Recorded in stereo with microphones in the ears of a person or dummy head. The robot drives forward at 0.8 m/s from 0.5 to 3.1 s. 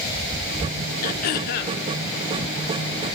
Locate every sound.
1.0 s throat clearing: 45° left (ahead or behind), 1.2 m; by 1.8 s 55° left (ahead or behind), 1.1 m